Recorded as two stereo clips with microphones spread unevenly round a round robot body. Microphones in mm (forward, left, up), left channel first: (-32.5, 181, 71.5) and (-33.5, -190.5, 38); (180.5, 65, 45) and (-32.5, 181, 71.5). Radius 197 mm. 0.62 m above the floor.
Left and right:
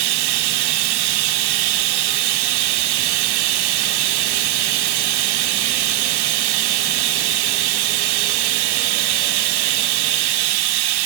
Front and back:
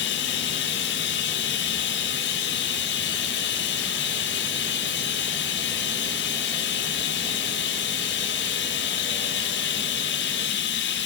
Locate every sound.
0.0 s running water: 75° right, 1.2 m